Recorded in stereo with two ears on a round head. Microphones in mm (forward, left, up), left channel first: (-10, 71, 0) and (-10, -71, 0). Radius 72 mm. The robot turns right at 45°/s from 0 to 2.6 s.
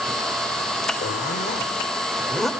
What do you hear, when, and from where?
1.0 s a zipper: 115° left, 0.9 m; by 2.5 s straight behind, 0.9 m